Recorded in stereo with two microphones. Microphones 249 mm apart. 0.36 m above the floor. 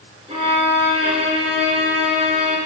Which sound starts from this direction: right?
A violin, at 0.3 s.